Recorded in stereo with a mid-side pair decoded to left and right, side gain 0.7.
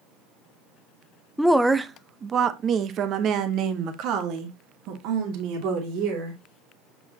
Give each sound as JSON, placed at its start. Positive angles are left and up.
{"t": 1.4, "sound": "a woman speaking", "azimuth_deg": 5, "distance_m": 0.7}